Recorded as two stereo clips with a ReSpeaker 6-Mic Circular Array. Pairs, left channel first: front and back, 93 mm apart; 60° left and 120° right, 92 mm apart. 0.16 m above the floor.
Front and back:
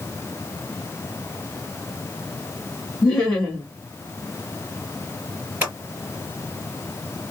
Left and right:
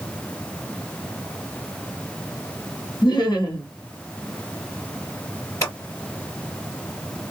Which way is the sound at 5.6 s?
110° left.